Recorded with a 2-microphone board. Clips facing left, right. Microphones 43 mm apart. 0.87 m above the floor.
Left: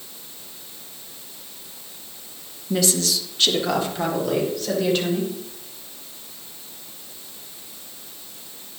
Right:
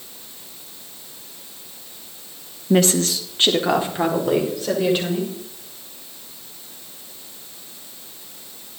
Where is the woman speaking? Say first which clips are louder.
Right 5 dB; 50° right (ahead or behind), 0.8 m; by 5.3 s 20° right (ahead or behind), 3.5 m.